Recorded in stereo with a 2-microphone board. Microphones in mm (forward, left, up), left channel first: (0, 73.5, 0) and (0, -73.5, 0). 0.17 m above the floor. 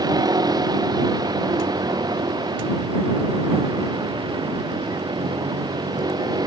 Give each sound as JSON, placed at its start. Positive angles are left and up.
{"t": 0.0, "sound": "a vehicle", "side_deg": -25}